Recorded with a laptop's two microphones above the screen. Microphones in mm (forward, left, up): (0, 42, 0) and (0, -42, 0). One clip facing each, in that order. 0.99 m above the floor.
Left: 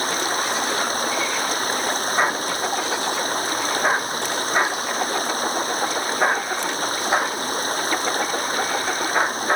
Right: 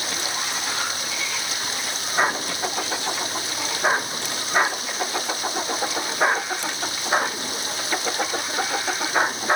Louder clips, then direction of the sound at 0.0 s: Left 6 dB; 45° left (ahead or behind).